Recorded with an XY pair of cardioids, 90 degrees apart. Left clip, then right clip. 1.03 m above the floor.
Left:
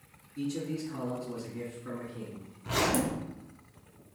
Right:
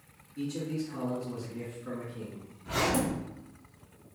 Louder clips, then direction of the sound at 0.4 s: Even; 35° left.